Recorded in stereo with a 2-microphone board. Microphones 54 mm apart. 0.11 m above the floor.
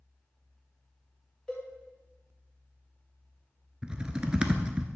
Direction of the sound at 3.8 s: 20° right (ahead or behind).